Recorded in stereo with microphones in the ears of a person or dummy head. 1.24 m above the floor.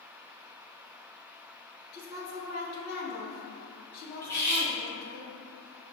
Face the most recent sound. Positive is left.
turn(degrees=15)  # may be behind; listen again after turning